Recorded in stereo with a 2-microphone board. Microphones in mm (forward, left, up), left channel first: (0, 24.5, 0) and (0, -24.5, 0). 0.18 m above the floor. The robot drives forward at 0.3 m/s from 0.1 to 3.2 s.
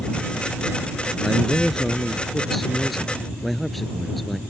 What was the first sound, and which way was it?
A man speaking, centre (ahead or behind).